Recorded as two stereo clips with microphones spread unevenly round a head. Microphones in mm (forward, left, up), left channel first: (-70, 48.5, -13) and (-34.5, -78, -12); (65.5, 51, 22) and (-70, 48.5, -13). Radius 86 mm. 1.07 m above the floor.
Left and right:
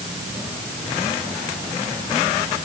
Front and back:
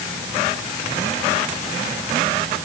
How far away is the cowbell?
No cowbell in this recording.